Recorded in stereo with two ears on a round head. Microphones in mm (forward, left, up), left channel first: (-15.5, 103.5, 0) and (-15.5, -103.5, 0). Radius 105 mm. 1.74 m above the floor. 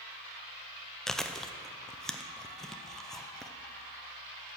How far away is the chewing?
About 0.5 m.